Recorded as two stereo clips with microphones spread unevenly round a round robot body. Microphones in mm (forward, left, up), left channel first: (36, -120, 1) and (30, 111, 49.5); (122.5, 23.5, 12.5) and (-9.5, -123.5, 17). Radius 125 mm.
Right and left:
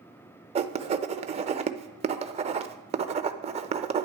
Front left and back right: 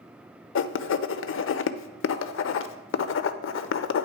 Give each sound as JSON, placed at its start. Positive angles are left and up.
{"t": 0.6, "sound": "writing", "azimuth_deg": 25, "distance_m": 0.6}